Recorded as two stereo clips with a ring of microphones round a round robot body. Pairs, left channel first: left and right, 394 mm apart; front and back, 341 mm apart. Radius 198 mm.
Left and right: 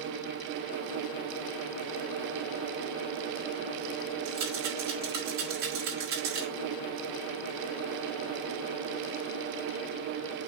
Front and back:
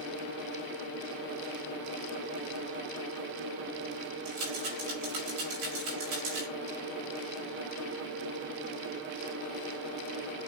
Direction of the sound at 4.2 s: 140° right.